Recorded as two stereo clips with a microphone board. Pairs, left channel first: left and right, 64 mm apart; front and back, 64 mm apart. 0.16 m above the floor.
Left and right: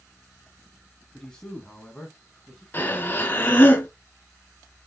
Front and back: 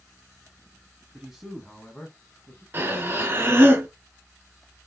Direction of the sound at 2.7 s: 135° left.